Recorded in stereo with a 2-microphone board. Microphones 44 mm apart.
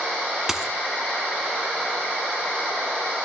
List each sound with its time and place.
0.5 s a dropped coin: 10° right (ahead or behind), 0.6 m